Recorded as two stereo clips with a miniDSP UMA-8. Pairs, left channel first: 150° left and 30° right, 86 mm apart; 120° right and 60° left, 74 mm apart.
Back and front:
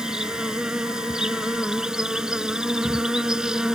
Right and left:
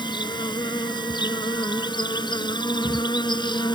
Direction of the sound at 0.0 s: 115° right.